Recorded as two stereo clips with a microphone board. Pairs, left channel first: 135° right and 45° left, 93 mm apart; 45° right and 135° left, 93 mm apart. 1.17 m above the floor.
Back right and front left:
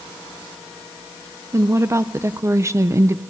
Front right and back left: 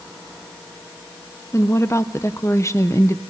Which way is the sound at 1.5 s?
Straight ahead.